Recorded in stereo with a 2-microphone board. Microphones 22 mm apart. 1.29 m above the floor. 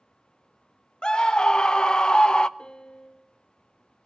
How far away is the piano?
About 1.0 m.